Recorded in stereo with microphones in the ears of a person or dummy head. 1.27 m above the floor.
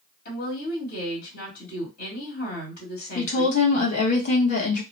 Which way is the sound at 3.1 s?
40° left (ahead or behind).